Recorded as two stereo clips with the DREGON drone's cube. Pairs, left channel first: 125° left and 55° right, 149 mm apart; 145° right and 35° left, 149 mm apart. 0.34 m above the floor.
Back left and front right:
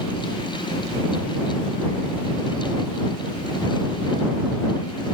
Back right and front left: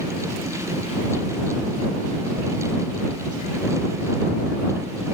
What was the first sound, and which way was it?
Only background noise.